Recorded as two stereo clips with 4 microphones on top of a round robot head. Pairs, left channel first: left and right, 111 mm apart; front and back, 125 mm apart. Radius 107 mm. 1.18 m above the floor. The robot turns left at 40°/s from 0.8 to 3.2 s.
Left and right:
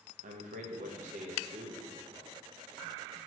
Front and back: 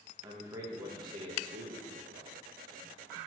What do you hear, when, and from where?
0.2 s a man speaking: 110° right, 0.9 m; by 2.3 s 170° right, 0.9 m